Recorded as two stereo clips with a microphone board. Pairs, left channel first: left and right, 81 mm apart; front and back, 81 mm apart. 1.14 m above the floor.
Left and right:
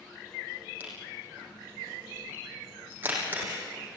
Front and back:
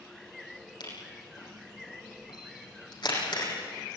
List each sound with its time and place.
0.8 s a camera shutter: 25° right, 7.5 m